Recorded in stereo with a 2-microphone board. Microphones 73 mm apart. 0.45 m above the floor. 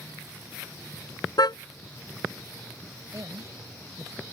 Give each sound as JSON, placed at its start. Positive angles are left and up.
{"t": 1.4, "sound": "a car horn", "side_deg": 70}
{"t": 3.1, "sound": "a woman speaking", "side_deg": -50}